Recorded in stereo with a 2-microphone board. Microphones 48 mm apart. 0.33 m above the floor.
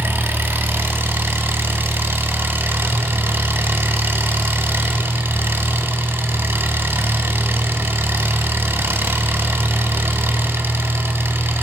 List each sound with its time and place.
0.0 s an engine running: 55° right (ahead or behind), 0.7 m